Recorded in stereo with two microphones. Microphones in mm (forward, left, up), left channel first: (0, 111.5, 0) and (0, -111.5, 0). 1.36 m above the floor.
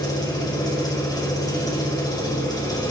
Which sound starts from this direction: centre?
An engine running, at 0.0 s.